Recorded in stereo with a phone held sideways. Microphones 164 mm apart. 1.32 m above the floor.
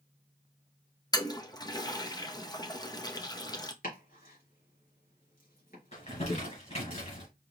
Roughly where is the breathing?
No breathing in this recording.